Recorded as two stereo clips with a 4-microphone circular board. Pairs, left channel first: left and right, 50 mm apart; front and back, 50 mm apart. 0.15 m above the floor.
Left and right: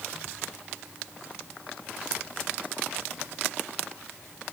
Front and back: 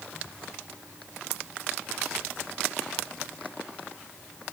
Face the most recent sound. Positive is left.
No sound to turn to.